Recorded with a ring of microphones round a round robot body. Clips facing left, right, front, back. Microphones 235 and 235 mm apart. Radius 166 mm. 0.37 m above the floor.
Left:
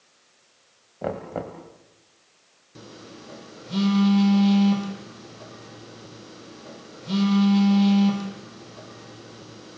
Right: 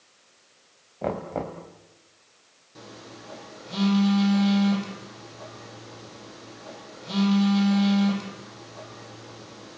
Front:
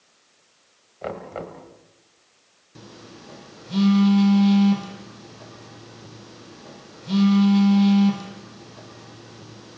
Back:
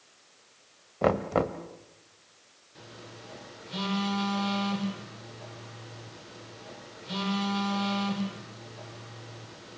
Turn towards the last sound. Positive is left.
turn(degrees=35)